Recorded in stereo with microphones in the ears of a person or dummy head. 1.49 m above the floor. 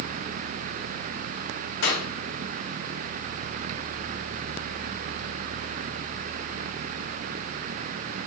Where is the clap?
65° left (ahead or behind), 3.5 m.